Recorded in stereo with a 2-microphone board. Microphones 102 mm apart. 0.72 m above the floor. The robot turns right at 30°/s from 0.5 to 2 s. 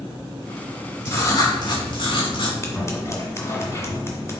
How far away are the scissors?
About 1.6 m.